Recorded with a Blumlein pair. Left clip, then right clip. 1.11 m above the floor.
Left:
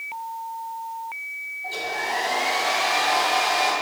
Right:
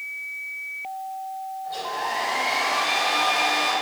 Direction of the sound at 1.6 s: 50° left.